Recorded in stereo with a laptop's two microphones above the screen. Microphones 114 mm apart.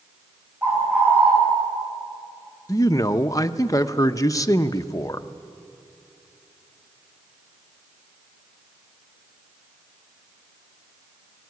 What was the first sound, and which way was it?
A bird, 15° right (ahead or behind).